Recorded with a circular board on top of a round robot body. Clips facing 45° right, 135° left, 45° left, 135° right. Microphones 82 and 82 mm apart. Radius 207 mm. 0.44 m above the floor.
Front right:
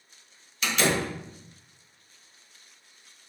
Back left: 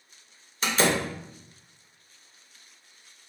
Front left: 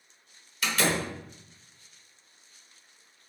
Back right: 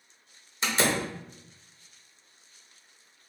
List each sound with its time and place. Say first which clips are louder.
0.6 s a door slam: back left 1 dB, back right 1 dB; 175° left, 0.9 m